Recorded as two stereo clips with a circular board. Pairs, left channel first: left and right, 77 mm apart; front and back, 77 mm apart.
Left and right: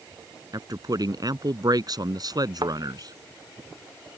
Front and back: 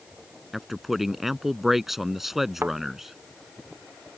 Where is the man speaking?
95° right.